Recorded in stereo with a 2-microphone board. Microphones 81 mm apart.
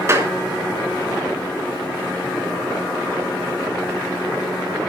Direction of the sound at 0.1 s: 30° right (ahead or behind).